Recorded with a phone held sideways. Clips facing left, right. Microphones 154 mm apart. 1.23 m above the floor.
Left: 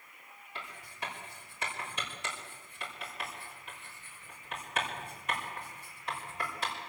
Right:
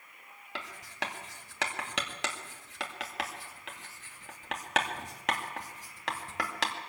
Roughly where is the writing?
Right.